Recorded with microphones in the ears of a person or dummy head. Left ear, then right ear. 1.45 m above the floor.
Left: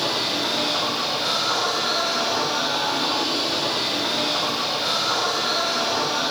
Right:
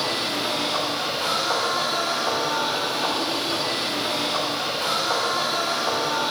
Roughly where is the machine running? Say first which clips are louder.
Left 2 dB; right.